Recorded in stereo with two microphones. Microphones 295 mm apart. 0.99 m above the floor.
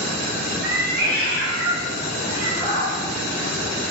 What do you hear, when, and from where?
0.6 s a cat meowing: 30° right (ahead or behind), 1.2 m; by 2.9 s 60° right (ahead or behind), 3.5 m